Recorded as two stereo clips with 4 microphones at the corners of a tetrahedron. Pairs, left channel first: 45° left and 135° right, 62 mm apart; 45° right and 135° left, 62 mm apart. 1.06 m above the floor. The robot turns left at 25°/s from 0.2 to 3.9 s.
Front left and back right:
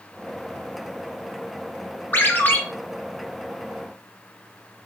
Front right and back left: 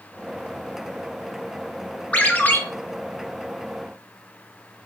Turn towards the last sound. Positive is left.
turn(degrees=-35)